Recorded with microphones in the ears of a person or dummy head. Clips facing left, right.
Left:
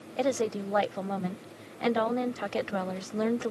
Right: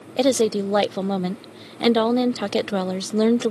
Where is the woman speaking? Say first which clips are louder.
Right 9 dB; 55° right (ahead or behind).